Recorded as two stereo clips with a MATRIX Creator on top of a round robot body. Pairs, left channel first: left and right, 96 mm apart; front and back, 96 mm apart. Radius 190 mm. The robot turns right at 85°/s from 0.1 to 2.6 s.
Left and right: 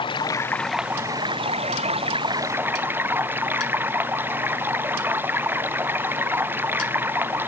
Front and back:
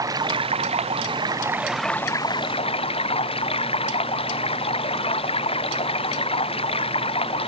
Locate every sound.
0.0 s running water: 125° left; by 7.5 s 20° right